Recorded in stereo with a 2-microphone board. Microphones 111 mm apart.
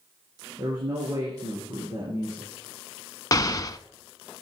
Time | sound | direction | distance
0.6 | a man speaking | 35° right (ahead or behind) | 3.5 m
3.3 | an explosion | 35° left (ahead or behind) | 0.6 m